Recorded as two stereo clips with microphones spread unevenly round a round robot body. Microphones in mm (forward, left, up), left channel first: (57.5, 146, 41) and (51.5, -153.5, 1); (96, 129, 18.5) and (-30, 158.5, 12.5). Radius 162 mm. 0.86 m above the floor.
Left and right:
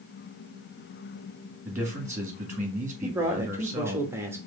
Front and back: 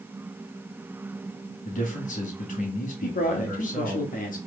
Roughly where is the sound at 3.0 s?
Ahead.